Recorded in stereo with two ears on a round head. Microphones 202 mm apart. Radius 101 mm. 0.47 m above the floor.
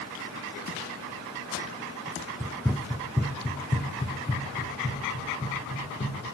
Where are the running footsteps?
10° right (ahead or behind), 0.6 m; by 6.2 s 25° left (ahead or behind), 3 m.